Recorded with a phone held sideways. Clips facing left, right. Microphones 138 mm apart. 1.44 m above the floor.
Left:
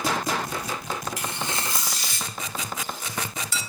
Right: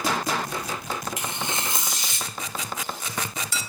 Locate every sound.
1.2 s tearing paper: 20° right (ahead or behind), 1.0 m